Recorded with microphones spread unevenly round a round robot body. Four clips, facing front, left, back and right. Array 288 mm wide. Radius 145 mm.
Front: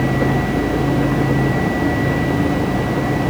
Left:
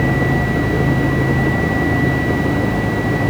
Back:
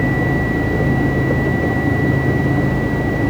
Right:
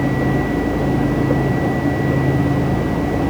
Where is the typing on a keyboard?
I don't hear typing on a keyboard.